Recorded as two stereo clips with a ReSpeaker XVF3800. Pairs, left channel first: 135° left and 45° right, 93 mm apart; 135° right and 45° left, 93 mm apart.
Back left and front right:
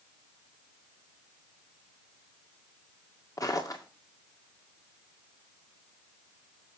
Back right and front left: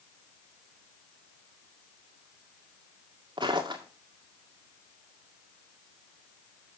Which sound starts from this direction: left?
Footsteps, at 3.4 s.